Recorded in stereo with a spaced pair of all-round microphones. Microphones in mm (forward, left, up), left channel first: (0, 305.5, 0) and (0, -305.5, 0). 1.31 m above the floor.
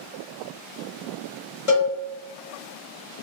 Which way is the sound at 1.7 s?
55° left (ahead or behind).